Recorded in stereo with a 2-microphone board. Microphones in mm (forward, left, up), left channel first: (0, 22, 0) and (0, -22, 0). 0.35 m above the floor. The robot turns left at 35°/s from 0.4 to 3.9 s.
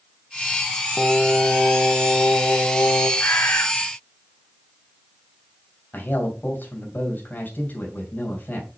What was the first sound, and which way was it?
Singing, 160° left.